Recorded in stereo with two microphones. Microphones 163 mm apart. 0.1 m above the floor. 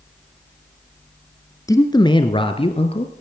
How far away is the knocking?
No knocking in this recording.